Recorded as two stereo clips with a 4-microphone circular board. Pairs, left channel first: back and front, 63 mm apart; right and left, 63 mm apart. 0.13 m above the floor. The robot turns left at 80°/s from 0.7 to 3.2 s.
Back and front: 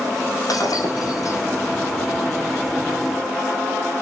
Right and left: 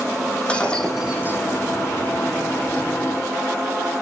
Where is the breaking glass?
165° right, 3.5 m; by 1.4 s 140° left, 3.5 m.